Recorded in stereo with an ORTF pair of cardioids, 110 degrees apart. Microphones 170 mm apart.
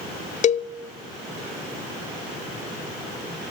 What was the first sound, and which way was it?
A cowbell, 40° left.